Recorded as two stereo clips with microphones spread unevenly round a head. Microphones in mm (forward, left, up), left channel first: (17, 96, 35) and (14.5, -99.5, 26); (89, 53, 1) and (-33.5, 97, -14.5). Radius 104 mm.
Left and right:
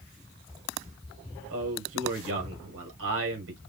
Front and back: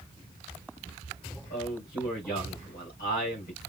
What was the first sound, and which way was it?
A man speaking, 70° right.